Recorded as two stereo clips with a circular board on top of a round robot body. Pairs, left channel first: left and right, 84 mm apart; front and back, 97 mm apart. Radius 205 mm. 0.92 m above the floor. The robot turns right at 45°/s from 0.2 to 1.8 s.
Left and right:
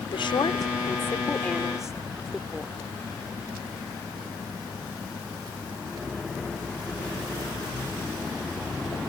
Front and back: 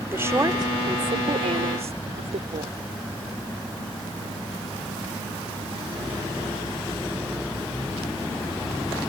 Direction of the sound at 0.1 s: 110° left.